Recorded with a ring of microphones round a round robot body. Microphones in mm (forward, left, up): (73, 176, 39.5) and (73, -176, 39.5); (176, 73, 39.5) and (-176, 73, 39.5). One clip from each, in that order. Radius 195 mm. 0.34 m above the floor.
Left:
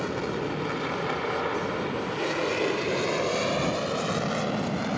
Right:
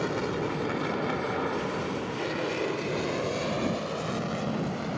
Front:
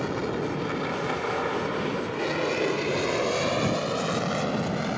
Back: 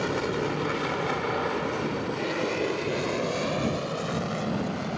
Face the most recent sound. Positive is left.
turn(degrees=45)